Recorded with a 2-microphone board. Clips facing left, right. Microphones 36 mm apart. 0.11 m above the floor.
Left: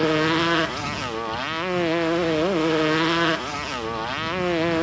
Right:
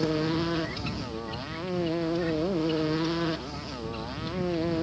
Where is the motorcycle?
85° left.